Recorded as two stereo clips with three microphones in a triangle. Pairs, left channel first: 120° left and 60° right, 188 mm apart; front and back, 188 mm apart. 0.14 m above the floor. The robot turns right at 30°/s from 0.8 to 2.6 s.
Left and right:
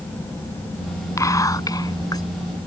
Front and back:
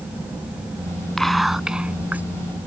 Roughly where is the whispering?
Left.